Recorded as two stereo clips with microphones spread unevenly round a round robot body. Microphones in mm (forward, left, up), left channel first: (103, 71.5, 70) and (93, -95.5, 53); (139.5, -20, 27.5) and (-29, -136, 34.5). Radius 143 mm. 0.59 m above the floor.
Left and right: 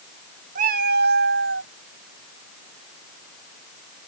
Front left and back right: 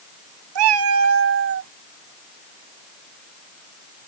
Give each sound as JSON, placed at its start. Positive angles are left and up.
{"t": 0.6, "sound": "a cat meowing", "azimuth_deg": -150}